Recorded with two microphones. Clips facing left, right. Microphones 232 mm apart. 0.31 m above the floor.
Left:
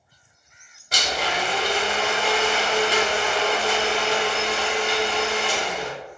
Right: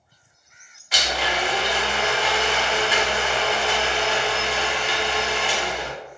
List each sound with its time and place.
0.9 s a blender: 40° left (ahead or behind), 1.1 m